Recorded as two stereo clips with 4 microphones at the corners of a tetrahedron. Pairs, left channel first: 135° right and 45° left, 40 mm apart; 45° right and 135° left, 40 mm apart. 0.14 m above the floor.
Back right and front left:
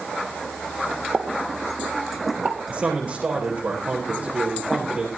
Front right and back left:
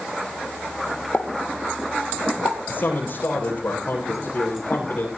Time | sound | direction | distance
1.1 | a pop | straight ahead | 3 m
2.7 | a man speaking | 10° right | 7.5 m